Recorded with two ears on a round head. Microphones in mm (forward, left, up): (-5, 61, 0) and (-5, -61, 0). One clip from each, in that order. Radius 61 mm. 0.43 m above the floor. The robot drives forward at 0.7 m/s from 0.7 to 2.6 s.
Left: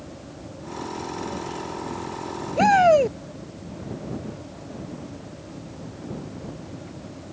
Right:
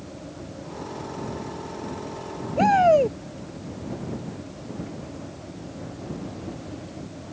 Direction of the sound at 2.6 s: 40° left (ahead or behind).